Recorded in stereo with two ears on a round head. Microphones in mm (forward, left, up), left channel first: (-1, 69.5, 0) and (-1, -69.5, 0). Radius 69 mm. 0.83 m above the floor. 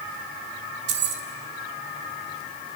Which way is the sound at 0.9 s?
85° right.